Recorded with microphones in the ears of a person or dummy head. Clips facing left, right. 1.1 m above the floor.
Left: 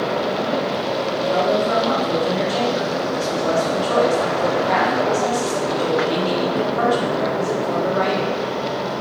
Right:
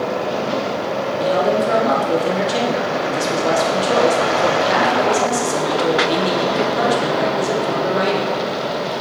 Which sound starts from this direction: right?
A man speaking, at 1.2 s.